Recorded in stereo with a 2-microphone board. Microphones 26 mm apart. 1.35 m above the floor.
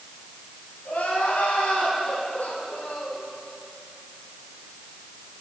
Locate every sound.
0.8 s crying: 85° left, 6 m